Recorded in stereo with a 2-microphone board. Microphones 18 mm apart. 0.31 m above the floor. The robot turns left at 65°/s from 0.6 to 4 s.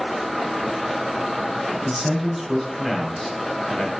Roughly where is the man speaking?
Right.